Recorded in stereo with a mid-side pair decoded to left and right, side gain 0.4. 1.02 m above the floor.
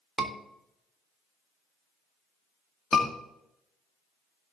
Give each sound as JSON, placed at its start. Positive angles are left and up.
{"t": 0.2, "sound": "a scream", "azimuth_deg": -5, "distance_m": 3.0}
{"t": 2.9, "sound": "a scream", "azimuth_deg": 30, "distance_m": 2.5}